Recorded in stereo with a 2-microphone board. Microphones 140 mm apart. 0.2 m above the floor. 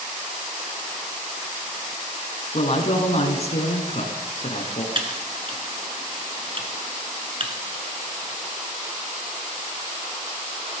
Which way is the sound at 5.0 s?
40° right (ahead or behind).